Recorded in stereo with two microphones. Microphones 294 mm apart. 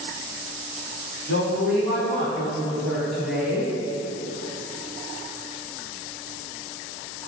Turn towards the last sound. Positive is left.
turn(degrees=-15)  # may be behind; listen again after turning